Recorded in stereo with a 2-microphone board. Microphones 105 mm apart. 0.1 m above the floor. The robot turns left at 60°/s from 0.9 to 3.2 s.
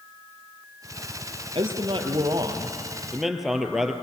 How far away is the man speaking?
About 1.9 m.